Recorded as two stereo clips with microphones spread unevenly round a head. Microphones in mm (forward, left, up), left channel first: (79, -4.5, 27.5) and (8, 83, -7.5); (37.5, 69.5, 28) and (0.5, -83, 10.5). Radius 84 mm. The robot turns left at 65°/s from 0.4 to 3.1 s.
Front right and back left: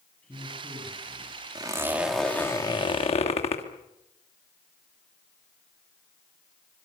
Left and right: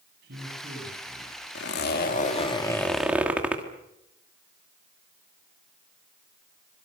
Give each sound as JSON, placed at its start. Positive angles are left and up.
{"t": 0.2, "sound": "a man speaking", "azimuth_deg": -135, "distance_m": 8.5}
{"t": 1.6, "sound": "a zipper", "azimuth_deg": 80, "distance_m": 2.5}